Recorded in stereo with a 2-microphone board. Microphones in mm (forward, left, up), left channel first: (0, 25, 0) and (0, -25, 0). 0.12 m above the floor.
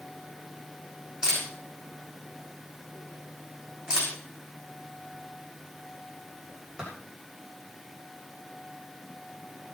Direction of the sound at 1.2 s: 15° right (ahead or behind).